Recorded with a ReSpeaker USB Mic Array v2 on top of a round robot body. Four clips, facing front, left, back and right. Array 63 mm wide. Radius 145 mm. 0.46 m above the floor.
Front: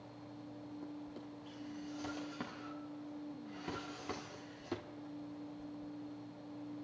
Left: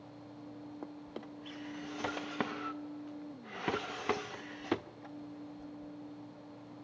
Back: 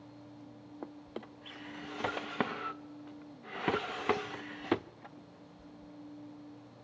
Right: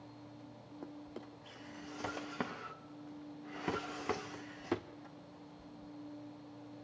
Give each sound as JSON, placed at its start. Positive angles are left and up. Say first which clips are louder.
{"t": 0.8, "sound": "a drawer", "louder": "right 1 dB, back 2 dB", "azimuth_deg": 165, "distance_m": 0.9}